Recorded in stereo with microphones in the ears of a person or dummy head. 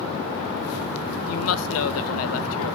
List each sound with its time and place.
1.3 s a woman speaking: 70° left (ahead or behind), 0.5 m